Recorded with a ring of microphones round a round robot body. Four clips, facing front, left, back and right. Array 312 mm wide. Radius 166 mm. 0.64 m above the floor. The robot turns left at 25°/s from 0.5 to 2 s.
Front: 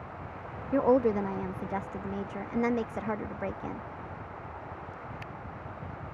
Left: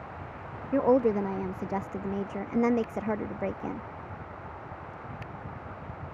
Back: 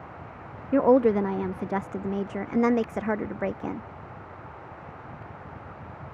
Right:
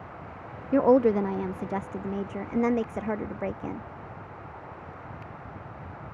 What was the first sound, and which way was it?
A woman speaking, 145° right.